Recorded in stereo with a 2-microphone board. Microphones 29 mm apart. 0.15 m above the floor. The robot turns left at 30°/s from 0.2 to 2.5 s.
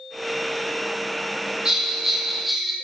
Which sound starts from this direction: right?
A bell, at 1.6 s.